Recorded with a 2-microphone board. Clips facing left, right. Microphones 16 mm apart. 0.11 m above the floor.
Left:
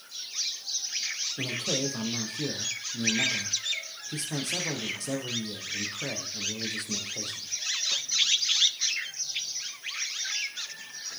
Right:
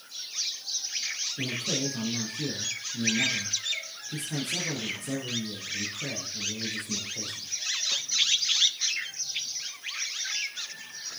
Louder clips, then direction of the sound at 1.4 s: Left 1 dB; 65° left (ahead or behind).